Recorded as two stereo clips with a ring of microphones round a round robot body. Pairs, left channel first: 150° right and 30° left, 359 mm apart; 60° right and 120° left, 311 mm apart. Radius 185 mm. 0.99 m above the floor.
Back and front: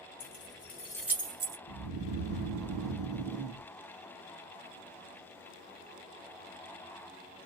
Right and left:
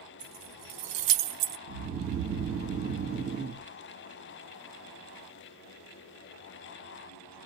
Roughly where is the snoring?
Left.